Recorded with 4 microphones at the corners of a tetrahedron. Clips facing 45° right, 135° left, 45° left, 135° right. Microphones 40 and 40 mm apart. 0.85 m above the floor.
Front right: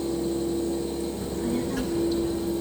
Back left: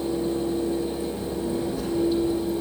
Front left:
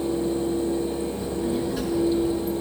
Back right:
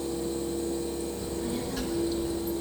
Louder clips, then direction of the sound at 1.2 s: Even, front left 6 dB; 30° right.